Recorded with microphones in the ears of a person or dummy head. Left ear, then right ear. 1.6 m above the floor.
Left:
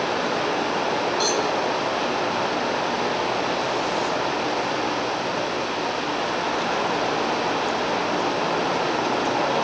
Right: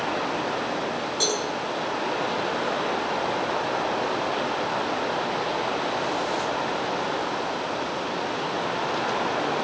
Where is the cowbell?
25° right (ahead or behind), 9.5 m.